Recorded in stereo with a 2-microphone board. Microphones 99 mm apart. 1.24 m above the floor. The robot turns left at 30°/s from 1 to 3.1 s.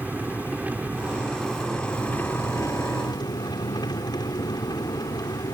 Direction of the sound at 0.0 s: 165° right.